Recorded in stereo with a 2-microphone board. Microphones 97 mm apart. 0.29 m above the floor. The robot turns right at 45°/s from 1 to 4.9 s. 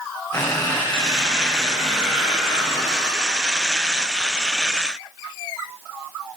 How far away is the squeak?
About 6.5 m.